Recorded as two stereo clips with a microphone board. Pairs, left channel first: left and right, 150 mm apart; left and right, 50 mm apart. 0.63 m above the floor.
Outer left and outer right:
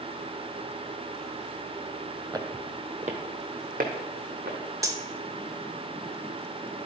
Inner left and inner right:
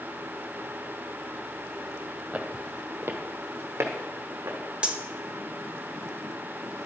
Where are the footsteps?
25° right (ahead or behind), 0.9 m; by 4.6 s 70° right (ahead or behind), 1.9 m.